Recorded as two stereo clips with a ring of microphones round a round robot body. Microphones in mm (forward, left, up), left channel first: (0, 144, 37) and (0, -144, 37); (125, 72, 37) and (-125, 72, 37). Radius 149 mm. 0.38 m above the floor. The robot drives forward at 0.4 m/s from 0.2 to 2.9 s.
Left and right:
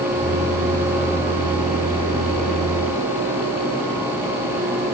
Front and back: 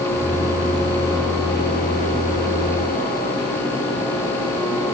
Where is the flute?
No flute in this recording.